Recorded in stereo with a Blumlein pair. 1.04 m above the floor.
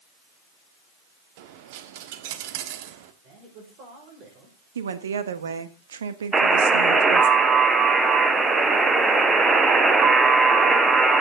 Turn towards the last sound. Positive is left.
turn(degrees=-15)